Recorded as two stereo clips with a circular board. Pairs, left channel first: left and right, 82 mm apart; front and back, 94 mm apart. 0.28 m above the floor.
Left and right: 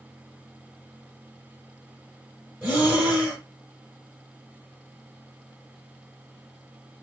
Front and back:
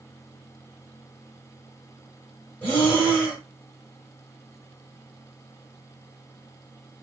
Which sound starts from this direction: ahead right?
Breathing, at 2.6 s.